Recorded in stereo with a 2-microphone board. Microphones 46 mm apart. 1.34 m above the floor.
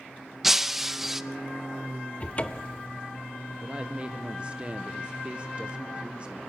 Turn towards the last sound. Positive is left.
turn(degrees=-30)  # may be behind; listen again after turning